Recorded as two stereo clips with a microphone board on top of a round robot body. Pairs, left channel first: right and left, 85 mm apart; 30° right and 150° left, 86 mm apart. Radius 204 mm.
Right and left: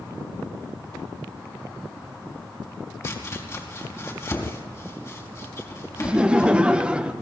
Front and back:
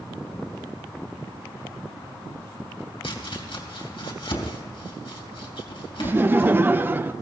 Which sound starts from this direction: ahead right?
Chopping, at 3.0 s.